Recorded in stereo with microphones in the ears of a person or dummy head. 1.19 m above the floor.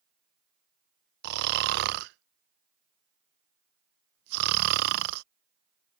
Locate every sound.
1.2 s snoring: 60° right (ahead or behind)